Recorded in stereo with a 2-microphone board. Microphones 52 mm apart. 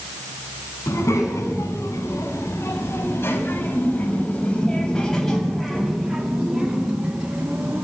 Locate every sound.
0.9 s a child speaking: 75° left (ahead or behind), 6.5 m; by 7.8 s 30° right (ahead or behind), 6 m